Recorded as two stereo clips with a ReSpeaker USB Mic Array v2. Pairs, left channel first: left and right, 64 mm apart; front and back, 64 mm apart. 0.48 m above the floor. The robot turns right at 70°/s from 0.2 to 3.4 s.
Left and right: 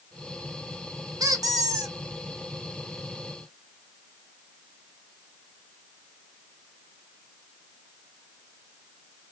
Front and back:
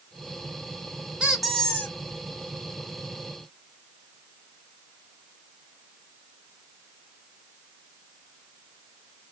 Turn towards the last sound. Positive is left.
turn(degrees=50)